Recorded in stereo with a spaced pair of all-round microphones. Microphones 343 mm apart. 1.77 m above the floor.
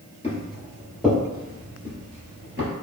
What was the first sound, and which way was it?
Footsteps, 20° left (ahead or behind).